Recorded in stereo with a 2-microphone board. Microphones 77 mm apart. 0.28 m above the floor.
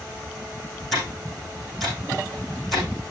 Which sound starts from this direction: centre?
Ticking, at 0.9 s.